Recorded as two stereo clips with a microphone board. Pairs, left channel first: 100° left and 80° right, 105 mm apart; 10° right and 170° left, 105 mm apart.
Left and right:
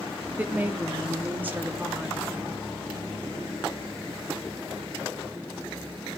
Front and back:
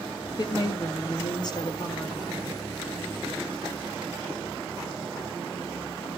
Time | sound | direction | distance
0.4 | a woman speaking | 15° right | 1.0 m